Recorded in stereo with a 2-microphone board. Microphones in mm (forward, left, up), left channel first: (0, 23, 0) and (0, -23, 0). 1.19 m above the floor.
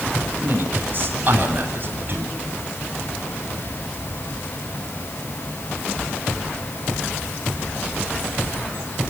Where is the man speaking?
40° right (ahead or behind), 9 m.